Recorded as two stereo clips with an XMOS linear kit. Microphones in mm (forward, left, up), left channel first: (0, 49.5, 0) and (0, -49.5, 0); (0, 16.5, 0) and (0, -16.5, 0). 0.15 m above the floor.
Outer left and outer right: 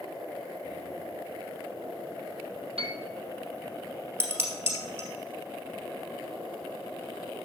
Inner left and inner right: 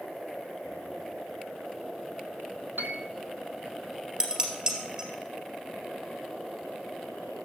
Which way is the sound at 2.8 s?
80° right.